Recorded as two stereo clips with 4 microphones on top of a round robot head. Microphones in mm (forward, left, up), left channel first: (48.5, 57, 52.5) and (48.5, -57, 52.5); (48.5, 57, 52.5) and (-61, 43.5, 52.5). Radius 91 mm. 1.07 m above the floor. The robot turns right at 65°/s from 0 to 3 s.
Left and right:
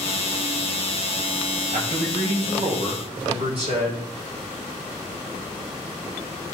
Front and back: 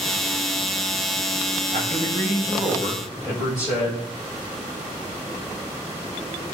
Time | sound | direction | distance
1.7 | a man speaking | 140° right | 7 m